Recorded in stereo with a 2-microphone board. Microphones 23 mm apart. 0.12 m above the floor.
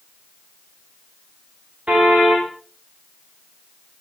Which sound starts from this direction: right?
A car horn, at 1.9 s.